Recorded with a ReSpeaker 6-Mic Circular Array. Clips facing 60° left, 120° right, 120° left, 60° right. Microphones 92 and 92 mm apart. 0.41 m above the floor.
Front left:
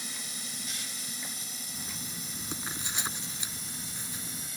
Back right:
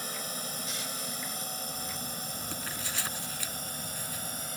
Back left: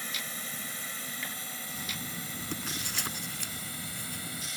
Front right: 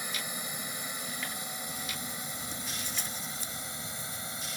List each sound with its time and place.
0.0 s a drone: 130° right; by 4.6 s 120° right
1.7 s writing: 130° left